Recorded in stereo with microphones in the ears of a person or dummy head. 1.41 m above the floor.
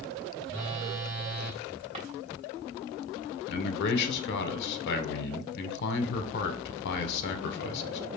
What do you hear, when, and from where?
0.5 s a phone buzzing: 45° right (ahead or behind), 1.3 m
1.9 s a drawer: 35° right (ahead or behind), 1.4 m
3.5 s a man speaking: 60° left (ahead or behind), 0.9 m